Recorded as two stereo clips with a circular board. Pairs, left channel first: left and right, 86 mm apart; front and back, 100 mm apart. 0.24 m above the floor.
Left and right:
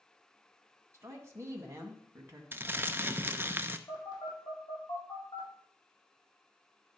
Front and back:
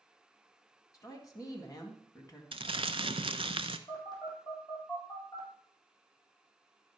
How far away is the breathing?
I don't hear breathing.